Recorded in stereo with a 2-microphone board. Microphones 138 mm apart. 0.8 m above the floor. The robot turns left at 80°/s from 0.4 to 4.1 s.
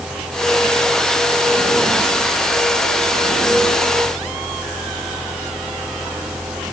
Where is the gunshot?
I don't hear a gunshot.